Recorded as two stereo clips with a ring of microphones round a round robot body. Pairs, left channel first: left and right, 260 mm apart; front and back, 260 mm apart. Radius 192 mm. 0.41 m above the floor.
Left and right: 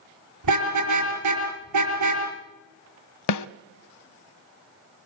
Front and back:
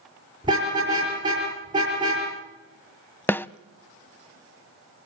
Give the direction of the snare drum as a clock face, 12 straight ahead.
9 o'clock.